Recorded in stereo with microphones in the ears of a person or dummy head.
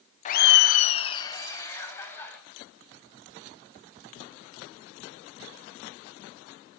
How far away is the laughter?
About 0.6 m.